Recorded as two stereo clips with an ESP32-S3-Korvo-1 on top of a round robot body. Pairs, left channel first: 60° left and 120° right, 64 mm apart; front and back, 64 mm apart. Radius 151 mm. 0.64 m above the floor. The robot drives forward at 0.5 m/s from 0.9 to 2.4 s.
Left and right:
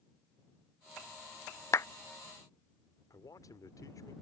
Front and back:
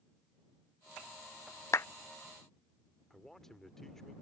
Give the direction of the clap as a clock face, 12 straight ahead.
11 o'clock.